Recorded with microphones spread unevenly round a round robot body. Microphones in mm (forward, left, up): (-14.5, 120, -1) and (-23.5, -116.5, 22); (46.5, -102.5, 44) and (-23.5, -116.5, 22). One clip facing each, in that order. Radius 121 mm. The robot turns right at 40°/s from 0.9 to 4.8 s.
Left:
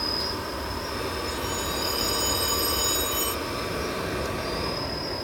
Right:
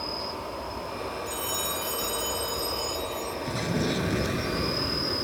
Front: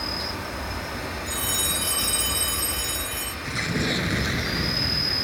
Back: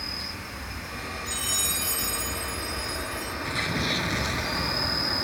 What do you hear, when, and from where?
0.0 s an insect: 45° left; by 5.2 s 155° right
1.3 s a phone ringing: 40° right; by 3.4 s 45° left
3.5 s an explosion: 65° right; by 5.2 s 10° right